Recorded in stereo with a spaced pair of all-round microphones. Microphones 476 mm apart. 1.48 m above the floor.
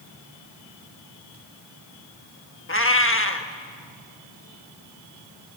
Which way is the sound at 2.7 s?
25° left (ahead or behind).